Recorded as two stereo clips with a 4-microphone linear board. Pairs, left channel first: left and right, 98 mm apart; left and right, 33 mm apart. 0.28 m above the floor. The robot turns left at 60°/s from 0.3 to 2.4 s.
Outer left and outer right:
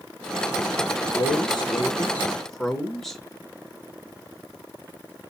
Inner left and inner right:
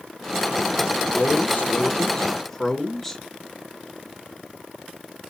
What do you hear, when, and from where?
1.1 s a man speaking: 80° left, 2.5 m; by 3.2 s 5° left, 2.5 m